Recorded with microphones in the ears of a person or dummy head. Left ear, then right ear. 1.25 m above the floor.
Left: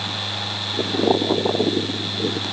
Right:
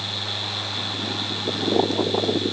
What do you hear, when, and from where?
Only background noise.